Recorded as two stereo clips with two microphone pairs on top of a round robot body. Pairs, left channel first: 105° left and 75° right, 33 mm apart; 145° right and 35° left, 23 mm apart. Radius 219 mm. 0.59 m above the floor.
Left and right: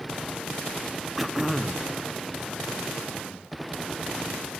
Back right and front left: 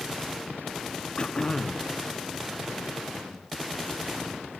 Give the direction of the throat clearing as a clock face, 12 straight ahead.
5 o'clock.